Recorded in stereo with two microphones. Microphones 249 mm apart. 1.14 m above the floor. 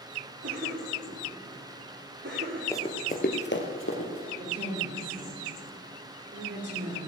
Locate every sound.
0.4 s a cough: 50° right (ahead or behind), 2.5 m
2.7 s running footsteps: 10° left (ahead or behind), 1.1 m; by 4.3 s 60° left (ahead or behind), 2.5 m
4.4 s a woman speaking: 45° right (ahead or behind), 4.5 m